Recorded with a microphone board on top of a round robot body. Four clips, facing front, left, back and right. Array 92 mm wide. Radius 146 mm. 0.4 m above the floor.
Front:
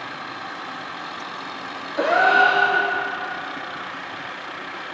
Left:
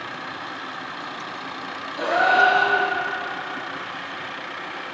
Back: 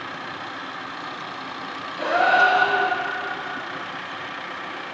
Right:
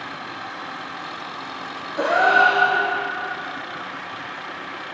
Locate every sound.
2.0 s a gasp: 20° right, 1.7 m